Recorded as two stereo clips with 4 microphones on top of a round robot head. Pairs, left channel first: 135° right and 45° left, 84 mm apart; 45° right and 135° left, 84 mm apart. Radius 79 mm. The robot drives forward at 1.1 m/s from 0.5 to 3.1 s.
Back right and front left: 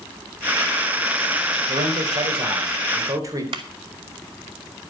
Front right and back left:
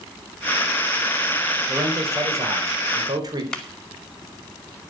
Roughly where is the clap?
Ahead left.